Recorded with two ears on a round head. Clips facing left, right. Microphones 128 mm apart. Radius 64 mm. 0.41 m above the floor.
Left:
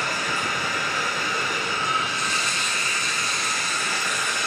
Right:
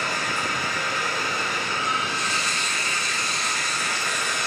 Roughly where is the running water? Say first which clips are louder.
Even; left.